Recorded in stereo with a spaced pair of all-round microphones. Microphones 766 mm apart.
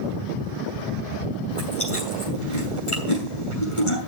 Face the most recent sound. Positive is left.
turn(degrees=40)  # may be behind; listen again after turning